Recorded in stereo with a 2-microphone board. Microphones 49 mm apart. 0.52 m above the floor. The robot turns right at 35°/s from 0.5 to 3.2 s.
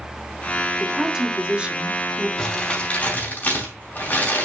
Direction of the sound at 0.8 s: 165° right.